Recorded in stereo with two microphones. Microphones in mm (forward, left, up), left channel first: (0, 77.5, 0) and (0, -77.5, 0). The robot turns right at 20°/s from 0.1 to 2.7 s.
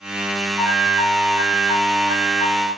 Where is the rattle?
No rattle in this recording.